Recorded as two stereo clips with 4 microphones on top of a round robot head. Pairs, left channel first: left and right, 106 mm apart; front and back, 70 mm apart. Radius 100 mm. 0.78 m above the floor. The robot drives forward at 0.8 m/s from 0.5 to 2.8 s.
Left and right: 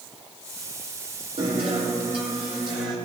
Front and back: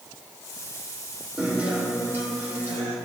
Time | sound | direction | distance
1.4 | a guitar | 110° right | 2.5 m